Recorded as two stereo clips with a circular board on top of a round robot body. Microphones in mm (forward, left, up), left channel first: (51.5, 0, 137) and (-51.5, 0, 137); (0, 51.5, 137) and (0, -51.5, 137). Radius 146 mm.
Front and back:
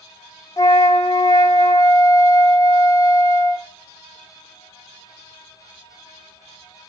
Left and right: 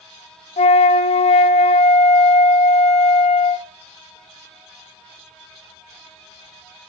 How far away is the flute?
About 0.5 m.